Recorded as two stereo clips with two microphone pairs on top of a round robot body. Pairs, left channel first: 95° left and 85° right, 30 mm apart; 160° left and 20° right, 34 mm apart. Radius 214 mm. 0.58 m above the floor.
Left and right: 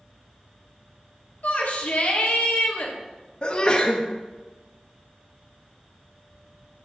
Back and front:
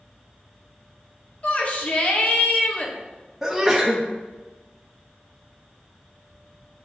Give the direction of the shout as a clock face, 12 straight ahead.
8 o'clock.